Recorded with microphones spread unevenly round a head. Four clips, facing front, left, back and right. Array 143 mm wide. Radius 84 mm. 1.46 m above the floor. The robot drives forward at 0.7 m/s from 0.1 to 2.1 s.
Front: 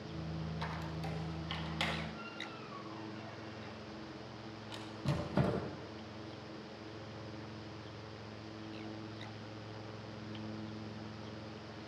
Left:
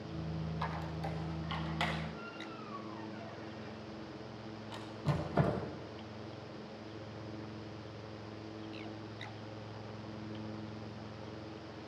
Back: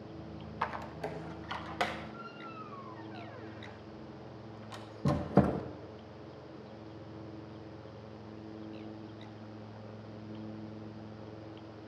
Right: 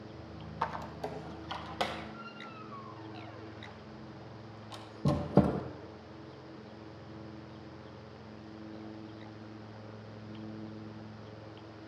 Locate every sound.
0.6 s a squeak: 115° right, 1.5 m; by 5.6 s 140° right, 2 m